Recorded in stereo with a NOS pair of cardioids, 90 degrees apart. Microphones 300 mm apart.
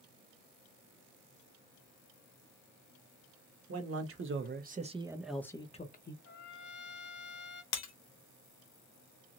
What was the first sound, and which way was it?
A man speaking, 50° right.